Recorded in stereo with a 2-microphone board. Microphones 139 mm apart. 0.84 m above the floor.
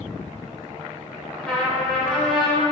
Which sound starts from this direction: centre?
A trumpet, at 1.4 s.